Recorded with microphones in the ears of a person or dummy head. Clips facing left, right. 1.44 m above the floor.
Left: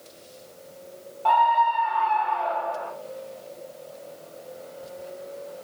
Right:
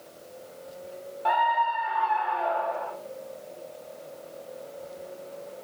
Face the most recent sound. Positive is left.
turn(degrees=-5)  # may be behind; listen again after turning